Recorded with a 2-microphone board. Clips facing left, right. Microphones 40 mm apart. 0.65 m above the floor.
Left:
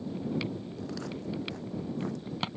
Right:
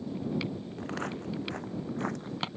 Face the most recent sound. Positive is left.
turn(degrees=-65)  # may be behind; listen again after turning